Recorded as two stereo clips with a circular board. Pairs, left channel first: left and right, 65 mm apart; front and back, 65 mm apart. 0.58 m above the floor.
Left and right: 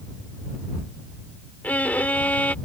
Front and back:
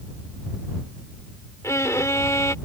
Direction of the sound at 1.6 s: 30° left.